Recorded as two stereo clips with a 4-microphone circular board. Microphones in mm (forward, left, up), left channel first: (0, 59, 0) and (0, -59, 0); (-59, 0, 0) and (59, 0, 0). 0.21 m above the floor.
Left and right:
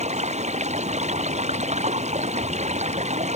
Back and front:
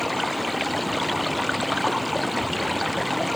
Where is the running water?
90° right.